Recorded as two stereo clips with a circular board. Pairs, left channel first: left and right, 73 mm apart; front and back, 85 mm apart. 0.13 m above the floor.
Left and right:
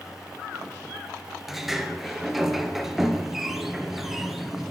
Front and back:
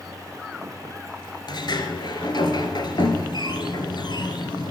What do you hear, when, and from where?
1.5 s a sliding door: 5° right, 1.2 m